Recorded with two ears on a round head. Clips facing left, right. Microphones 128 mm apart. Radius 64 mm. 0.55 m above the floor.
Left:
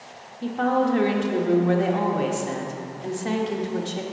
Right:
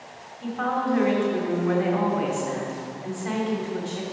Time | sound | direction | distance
0.4 | a woman speaking | 40° left (ahead or behind) | 1.2 m